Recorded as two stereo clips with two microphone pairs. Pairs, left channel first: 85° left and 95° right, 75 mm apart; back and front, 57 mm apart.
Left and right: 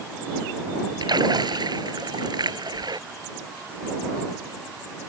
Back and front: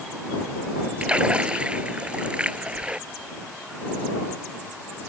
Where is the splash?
75° right.